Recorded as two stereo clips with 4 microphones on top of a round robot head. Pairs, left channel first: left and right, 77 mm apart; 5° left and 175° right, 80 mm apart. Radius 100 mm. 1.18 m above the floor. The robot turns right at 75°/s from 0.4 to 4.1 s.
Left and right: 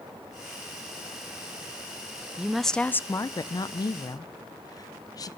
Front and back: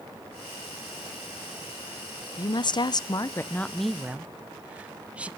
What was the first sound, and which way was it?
A woman speaking, 15° right.